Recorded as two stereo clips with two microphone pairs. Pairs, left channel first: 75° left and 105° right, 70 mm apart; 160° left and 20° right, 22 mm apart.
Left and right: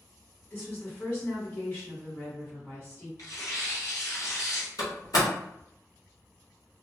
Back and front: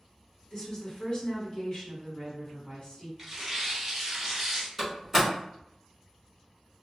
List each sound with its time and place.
0.5 s a woman speaking: 130° left, 1.8 m
3.2 s tearing paper: 60° left, 1.2 m
4.8 s a door slam: 60° left, 1.5 m